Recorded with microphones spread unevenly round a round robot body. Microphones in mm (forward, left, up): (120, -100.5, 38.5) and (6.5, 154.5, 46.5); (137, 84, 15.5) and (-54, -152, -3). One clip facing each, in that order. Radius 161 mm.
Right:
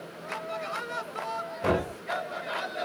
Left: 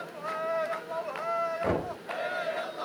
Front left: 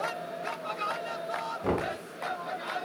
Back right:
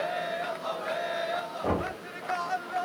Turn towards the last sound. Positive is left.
turn(degrees=-25)